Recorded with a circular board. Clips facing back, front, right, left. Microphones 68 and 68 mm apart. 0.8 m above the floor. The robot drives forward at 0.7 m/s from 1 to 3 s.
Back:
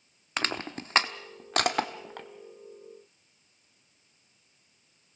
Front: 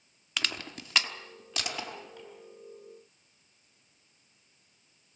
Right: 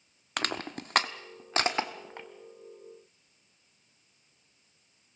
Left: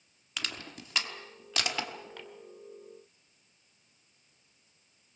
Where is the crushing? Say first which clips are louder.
Back 4 dB, right 7 dB; 125° right, 0.8 m; by 2.3 s 155° right, 1.5 m.